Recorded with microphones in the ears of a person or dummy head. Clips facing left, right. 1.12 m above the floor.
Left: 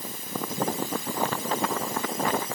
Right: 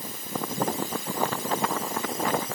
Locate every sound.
Only background noise.